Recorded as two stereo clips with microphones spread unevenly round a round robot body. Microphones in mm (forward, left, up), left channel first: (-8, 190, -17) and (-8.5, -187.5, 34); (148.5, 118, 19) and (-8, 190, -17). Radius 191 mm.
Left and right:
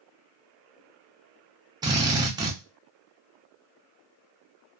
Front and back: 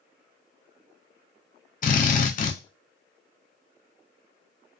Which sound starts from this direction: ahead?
A drill, at 1.8 s.